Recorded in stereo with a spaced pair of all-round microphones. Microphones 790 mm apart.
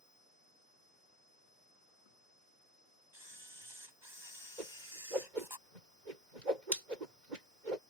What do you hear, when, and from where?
3.1 s a camera shutter: 30° right (ahead or behind)
4.6 s a whoosh: 70° right (ahead or behind)